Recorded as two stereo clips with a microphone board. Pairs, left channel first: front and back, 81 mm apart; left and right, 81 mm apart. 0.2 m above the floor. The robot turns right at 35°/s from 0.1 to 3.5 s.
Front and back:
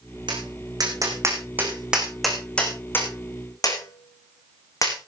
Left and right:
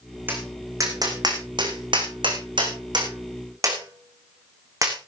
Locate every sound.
0.3 s tapping: 160° right, 3.5 m; by 5.0 s 45° right, 3.5 m